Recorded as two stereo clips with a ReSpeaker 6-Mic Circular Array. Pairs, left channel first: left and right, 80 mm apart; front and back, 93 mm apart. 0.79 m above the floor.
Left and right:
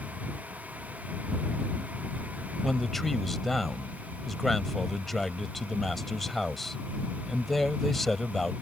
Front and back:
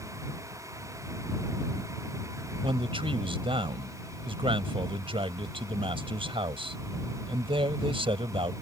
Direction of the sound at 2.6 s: 175° left.